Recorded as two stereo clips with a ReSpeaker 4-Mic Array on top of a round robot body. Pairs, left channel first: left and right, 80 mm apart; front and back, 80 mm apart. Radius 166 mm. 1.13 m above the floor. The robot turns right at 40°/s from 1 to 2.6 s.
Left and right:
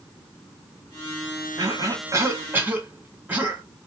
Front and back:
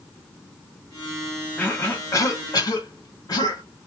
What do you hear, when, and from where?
1.6 s a cough: 70° right, 1.7 m; by 3.6 s 25° right, 1.7 m